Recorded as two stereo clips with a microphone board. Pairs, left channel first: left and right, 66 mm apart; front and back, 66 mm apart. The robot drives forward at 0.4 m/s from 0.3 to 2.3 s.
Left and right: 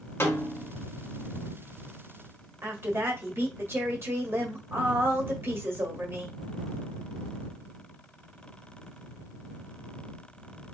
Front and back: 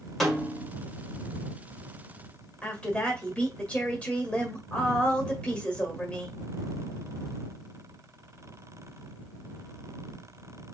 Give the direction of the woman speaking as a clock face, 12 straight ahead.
2 o'clock.